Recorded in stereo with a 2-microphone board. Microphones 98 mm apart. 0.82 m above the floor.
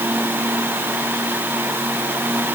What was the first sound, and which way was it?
Only background noise.